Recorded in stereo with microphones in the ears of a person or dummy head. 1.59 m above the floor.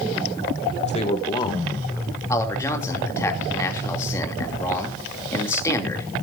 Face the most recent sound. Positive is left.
turn(degrees=15)  # may be behind; listen again after turning